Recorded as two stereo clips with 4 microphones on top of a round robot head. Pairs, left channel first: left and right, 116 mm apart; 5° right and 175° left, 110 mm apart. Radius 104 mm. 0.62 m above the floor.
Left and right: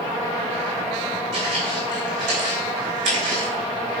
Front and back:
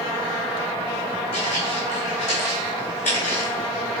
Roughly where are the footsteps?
Ahead right.